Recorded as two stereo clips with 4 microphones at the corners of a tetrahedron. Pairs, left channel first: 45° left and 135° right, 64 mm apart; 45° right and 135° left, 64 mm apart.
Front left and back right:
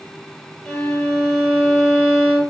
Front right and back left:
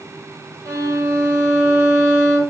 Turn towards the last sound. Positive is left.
turn(degrees=120)